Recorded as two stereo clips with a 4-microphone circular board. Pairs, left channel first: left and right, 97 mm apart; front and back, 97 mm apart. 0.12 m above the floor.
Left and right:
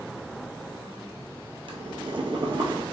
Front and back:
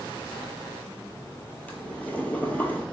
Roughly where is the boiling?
Right.